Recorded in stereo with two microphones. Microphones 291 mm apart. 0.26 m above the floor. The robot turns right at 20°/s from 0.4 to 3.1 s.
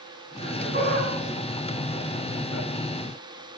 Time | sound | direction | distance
0.4 | laughter | 25° right (ahead or behind) | 9 m